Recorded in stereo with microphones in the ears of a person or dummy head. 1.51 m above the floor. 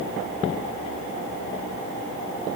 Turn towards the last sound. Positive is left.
No sound to turn to.